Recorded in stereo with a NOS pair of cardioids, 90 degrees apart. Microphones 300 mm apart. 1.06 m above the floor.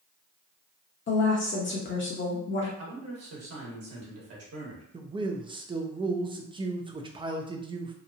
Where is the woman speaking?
35° left, 0.9 m.